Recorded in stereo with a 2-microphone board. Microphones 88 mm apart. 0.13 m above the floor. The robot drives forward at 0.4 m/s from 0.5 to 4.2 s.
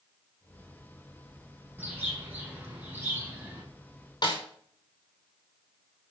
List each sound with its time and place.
1.8 s a bird: 20° right (ahead or behind), 6 m; by 3.6 s 25° right (ahead or behind), 5.5 m
4.2 s a snare drum: 50° left (ahead or behind), 4.5 m